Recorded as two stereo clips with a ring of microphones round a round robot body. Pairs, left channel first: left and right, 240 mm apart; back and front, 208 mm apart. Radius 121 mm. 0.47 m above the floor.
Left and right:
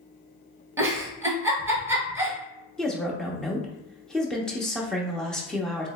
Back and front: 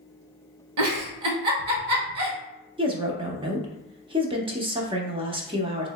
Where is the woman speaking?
5° left, 0.7 m.